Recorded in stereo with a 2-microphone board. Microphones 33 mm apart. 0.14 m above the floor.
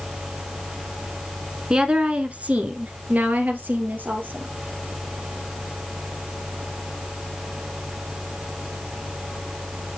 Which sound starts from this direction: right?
A woman speaking, at 1.7 s.